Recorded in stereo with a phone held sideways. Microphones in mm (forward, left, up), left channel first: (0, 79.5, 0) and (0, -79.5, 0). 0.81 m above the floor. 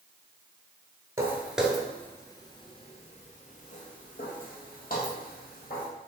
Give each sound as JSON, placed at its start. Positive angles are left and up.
{"t": 1.2, "sound": "footsteps", "side_deg": -20, "distance_m": 0.9}